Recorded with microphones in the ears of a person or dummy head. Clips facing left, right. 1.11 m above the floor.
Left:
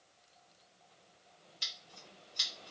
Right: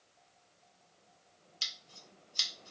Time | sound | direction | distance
1.6 | scissors | 70° right (ahead or behind) | 1.4 m